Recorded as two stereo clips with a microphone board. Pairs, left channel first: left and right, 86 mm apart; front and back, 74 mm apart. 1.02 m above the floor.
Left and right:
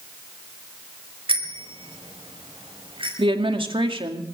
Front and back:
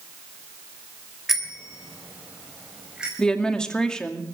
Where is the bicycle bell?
95° right, 3.5 m; by 3.1 s 100° right, 4.5 m.